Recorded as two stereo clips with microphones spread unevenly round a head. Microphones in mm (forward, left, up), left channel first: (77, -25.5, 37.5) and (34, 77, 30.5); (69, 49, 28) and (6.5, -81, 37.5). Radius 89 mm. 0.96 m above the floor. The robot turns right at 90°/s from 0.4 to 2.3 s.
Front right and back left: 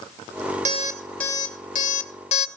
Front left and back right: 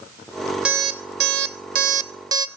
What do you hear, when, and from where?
0.7 s an alarm clock: 160° left, 0.8 m; by 2.5 s 50° right, 0.8 m